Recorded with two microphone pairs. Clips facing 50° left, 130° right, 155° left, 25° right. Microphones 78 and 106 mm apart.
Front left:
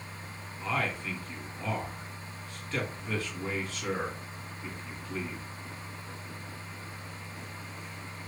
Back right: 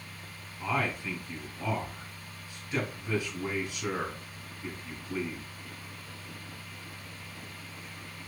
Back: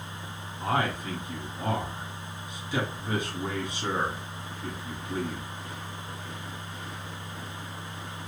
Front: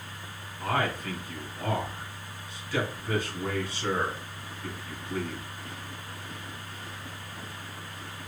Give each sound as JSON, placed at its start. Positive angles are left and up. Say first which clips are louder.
{"t": 0.6, "sound": "a man speaking", "louder": "back right 1 dB, back 1 dB", "azimuth_deg": -175, "distance_m": 1.3}